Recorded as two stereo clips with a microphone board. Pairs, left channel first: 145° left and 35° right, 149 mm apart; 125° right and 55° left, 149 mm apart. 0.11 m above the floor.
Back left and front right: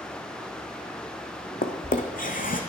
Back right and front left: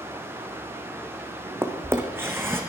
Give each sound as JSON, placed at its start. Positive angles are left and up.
{"t": 1.6, "sound": "a drawer", "azimuth_deg": 130, "distance_m": 1.4}